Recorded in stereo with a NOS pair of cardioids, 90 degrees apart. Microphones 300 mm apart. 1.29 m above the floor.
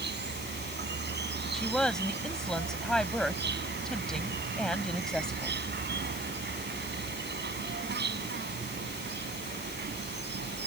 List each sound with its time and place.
0.0 s an insect: 35° right
1.5 s a woman speaking: straight ahead